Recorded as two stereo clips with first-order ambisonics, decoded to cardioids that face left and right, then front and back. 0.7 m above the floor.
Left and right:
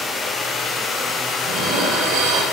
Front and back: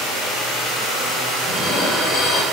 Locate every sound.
1.4 s dishes clattering: 50° right, 1.6 m